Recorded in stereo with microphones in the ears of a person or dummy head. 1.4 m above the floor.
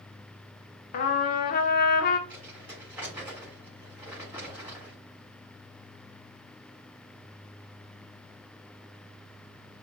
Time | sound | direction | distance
0.9 | a trumpet | 45° left (ahead or behind) | 0.7 m
2.3 | crumpling | 10° right (ahead or behind) | 3.5 m